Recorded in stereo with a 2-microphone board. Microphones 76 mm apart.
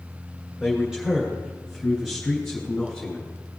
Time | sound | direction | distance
0.6 | a man speaking | 10° right (ahead or behind) | 3.5 m